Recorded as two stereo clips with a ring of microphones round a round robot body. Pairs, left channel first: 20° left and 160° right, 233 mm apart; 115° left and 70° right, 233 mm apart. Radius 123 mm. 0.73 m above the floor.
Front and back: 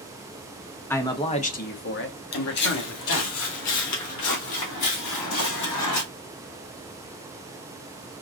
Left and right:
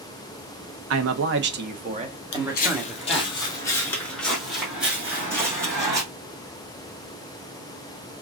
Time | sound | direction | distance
0.9 | a man speaking | 60° right | 1.0 m
2.3 | footsteps | 70° left | 1.3 m